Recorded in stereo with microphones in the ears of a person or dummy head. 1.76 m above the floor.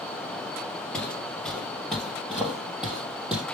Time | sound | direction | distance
0.9 | footsteps | 5° left (ahead or behind) | 2.5 m